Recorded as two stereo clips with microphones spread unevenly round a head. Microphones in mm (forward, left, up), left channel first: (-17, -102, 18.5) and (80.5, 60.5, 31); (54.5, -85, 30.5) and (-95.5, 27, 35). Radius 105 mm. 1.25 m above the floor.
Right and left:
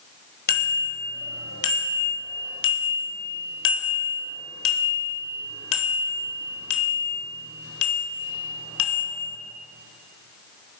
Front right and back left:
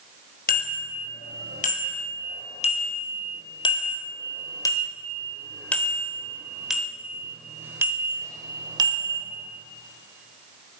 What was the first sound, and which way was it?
A bicycle bell, 80° right.